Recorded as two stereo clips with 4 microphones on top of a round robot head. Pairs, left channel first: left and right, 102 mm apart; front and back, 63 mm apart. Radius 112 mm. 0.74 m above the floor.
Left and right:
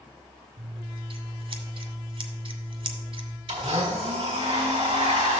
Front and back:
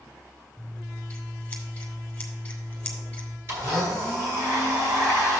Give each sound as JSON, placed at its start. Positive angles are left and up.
{"t": 0.6, "sound": "scissors", "azimuth_deg": -70, "distance_m": 1.2}
{"t": 3.5, "sound": "a blender", "azimuth_deg": -130, "distance_m": 2.0}